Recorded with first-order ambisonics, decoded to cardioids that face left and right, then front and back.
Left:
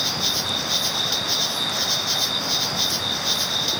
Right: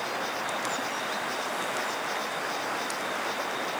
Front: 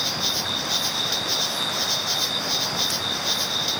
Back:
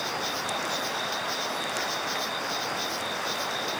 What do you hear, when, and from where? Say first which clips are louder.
0.0 s an insect: left 8 dB, front 6 dB; 55° left